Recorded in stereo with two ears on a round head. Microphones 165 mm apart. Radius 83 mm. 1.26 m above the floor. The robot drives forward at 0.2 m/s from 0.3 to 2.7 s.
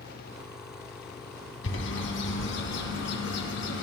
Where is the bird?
70° left (ahead or behind), 1.7 m; by 3.8 s 65° left (ahead or behind), 1.7 m.